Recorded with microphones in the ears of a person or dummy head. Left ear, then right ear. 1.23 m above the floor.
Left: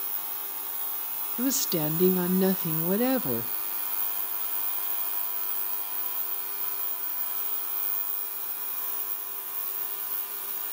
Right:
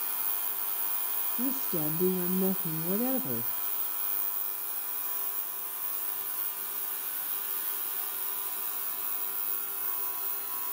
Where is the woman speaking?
60° left (ahead or behind), 0.8 m.